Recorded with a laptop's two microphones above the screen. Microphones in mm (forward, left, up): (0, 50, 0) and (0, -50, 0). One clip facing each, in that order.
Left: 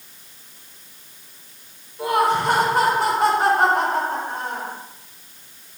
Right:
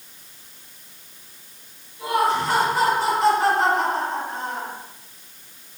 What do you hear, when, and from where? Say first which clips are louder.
2.0 s laughter: left 2 dB; 55° left (ahead or behind), 5 m